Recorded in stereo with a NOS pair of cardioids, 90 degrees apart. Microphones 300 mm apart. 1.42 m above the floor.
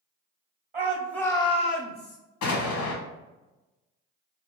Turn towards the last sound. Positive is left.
turn(degrees=70)